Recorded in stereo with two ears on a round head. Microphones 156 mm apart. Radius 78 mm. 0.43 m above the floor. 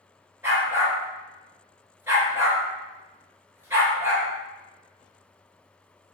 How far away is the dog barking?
About 1.8 m.